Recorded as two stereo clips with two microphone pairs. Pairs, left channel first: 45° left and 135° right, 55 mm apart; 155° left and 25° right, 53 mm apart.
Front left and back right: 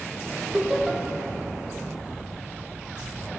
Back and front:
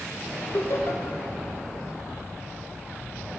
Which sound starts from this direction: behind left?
Laughter, at 0.5 s.